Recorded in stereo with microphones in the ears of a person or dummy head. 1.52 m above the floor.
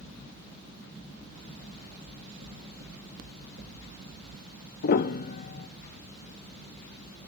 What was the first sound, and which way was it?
Knocking, 60° right (ahead or behind).